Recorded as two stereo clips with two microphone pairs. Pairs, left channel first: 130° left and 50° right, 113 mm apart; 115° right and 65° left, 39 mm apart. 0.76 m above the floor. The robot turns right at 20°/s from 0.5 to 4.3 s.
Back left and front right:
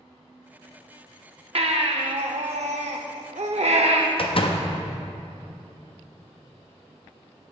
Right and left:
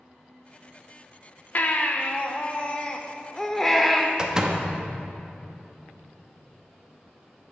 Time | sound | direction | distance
1.6 | a baby crying | 75° right | 0.6 m
4.2 | a door slam | 135° left | 0.7 m